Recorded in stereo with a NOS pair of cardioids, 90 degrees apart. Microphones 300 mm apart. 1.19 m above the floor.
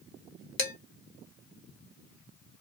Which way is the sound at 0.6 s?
45° left.